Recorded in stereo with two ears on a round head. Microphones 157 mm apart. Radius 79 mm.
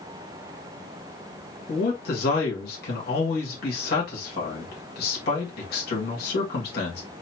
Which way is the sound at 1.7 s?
55° left (ahead or behind).